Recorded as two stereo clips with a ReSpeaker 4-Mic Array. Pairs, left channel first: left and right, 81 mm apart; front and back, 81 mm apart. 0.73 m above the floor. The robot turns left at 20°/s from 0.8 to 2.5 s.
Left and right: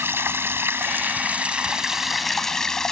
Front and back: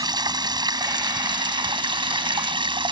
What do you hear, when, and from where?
0.0 s running water: 150° right; by 2.9 s 175° left